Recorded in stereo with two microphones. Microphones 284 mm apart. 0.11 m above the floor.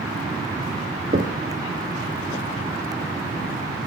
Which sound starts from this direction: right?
Knocking, at 1.1 s.